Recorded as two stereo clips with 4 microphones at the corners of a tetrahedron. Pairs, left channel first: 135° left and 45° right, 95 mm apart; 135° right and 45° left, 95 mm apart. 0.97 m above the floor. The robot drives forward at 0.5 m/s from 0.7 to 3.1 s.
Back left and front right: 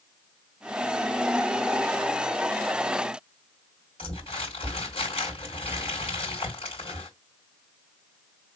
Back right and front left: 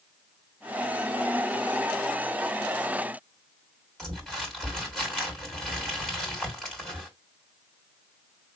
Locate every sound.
4.0 s crumpling: 140° left, 3 m